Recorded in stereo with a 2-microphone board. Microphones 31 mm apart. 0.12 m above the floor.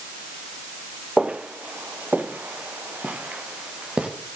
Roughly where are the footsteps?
Right.